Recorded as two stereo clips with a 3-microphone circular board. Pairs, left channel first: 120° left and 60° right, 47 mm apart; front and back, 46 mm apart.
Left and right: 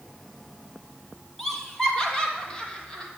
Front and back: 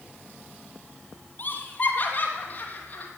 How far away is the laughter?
About 2.5 m.